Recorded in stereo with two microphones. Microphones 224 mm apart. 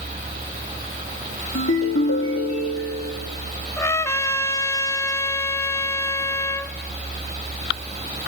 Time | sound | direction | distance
1.6 | a ringtone | 75° left (ahead or behind) | 1.8 m
3.8 | a trumpet | 10° left (ahead or behind) | 0.7 m